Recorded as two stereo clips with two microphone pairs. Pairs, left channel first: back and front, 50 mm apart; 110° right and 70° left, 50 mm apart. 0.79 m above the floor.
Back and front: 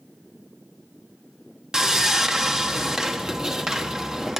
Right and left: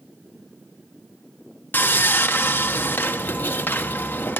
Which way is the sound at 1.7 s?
75° right.